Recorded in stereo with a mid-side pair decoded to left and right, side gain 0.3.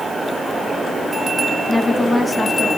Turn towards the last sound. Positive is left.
turn(degrees=20)